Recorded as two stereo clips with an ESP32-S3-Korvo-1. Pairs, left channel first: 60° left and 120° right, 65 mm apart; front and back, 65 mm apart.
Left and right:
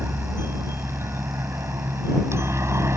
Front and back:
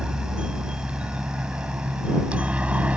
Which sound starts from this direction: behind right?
A helicopter, at 0.0 s.